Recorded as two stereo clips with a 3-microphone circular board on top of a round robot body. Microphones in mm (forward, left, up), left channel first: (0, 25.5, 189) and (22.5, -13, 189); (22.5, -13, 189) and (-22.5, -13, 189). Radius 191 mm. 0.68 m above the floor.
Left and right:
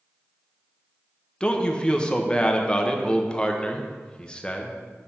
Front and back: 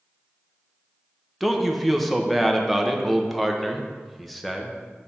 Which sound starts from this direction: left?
A man speaking, at 1.4 s.